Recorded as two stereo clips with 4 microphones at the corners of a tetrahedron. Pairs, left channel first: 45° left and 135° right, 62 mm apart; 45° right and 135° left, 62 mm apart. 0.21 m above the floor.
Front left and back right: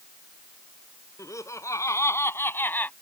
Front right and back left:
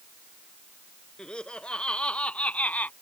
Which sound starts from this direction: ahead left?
Laughter, at 1.2 s.